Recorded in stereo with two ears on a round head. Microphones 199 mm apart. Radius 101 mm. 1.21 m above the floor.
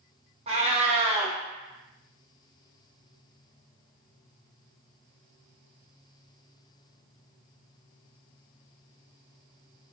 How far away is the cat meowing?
About 0.7 m.